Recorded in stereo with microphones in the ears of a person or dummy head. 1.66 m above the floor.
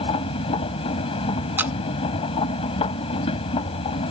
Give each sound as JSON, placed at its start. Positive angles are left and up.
{"t": 0.0, "sound": "a machine running", "side_deg": 30}
{"t": 1.6, "sound": "a camera shutter", "side_deg": -5}